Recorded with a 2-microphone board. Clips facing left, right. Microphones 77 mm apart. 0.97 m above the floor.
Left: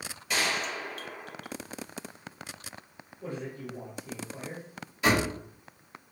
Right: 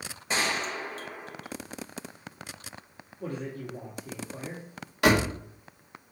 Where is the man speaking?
55° right (ahead or behind), 2 m.